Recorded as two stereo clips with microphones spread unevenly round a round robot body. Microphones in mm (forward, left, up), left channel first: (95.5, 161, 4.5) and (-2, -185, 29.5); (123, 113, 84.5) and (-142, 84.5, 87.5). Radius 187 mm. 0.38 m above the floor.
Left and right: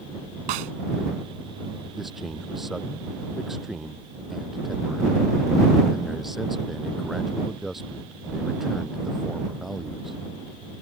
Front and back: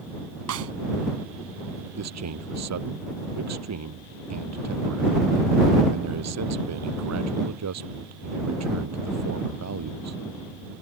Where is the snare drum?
135° right.